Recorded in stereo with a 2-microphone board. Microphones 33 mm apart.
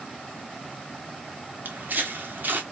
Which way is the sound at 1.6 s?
60° right (ahead or behind).